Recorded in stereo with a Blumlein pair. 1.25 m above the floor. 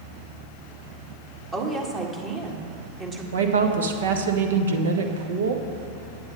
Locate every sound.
1.5 s a woman speaking: 25° right, 1.7 m
3.3 s a woman speaking: 65° right, 1.2 m